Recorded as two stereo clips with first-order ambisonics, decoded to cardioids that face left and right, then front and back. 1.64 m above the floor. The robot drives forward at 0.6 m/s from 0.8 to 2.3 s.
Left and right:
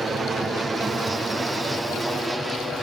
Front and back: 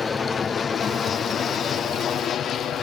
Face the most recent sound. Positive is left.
turn(degrees=-5)